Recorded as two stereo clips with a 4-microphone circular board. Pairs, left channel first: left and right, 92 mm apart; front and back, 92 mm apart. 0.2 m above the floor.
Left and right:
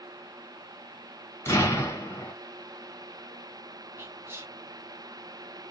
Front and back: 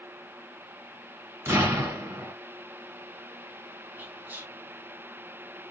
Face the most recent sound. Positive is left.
turn(degrees=-125)